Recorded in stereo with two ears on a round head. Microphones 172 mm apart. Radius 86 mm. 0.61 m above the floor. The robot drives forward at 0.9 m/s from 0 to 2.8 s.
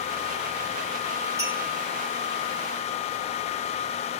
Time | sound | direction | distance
1.4 | a clink | 15° right (ahead or behind) | 3.5 m